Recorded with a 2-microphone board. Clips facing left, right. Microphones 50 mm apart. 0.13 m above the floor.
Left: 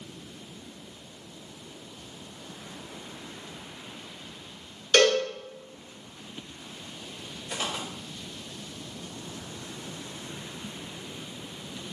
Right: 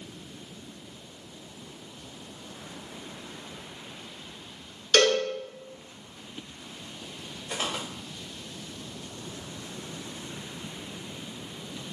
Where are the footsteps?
20° right (ahead or behind), 1.0 m.